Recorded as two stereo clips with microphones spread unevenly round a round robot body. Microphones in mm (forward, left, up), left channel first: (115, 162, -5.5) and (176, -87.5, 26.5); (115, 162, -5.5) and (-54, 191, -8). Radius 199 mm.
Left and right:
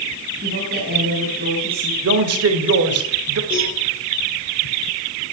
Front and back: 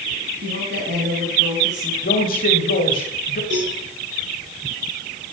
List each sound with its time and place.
0.4 s a woman speaking: 145° right, 3 m
2.0 s a man speaking: 60° right, 2.5 m
3.5 s a cowbell: 145° right, 7 m